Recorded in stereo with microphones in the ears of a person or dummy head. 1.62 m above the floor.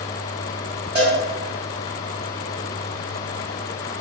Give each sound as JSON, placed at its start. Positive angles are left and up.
{"t": 0.9, "sound": "a cowbell", "side_deg": -15, "distance_m": 0.8}